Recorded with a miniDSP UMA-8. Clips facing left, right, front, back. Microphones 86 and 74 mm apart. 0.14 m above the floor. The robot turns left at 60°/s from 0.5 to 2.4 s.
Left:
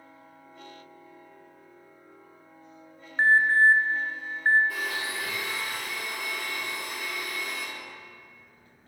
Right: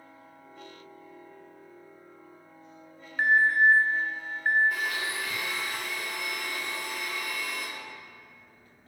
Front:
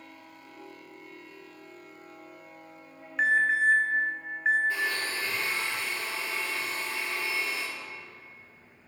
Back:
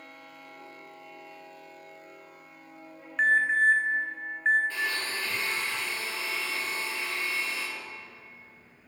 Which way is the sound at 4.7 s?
75° left.